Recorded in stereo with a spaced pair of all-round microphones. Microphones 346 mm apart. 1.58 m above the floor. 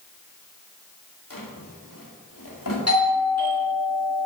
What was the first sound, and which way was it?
A drawer, 70° left (ahead or behind).